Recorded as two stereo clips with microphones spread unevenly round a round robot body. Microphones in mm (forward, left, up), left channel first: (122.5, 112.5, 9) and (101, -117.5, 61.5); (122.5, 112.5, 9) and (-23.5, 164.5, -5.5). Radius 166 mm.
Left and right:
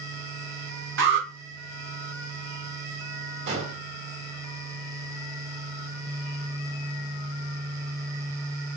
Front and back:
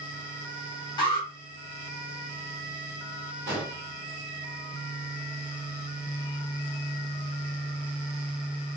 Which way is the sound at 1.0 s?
75° right.